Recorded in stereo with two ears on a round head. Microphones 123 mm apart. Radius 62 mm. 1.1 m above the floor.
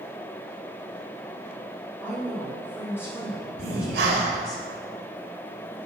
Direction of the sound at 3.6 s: 80° right.